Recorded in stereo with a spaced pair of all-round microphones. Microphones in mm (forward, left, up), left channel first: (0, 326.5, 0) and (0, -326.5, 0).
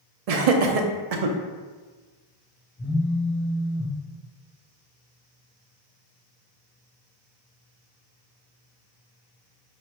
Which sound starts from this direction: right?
Laughter, at 0.3 s.